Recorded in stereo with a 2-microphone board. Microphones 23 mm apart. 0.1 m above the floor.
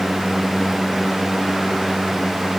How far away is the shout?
I don't hear a shout.